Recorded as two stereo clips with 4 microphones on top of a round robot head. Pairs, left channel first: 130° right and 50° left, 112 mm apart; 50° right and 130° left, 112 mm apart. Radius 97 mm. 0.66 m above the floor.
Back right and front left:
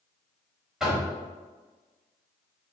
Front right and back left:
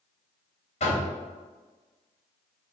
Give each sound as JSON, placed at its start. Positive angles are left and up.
{"t": 0.8, "sound": "knocking", "azimuth_deg": -40, "distance_m": 1.2}